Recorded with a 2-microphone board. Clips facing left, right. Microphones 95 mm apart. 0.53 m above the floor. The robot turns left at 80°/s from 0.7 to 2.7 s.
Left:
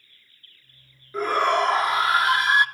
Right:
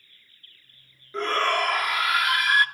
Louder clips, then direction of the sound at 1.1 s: Left 3 dB; 5° left (ahead or behind).